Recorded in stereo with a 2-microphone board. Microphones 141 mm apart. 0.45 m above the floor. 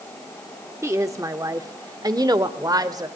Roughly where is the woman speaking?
Centre.